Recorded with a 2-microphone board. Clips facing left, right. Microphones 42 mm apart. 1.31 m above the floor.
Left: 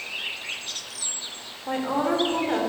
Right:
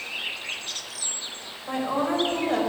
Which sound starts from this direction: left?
A woman speaking, at 1.7 s.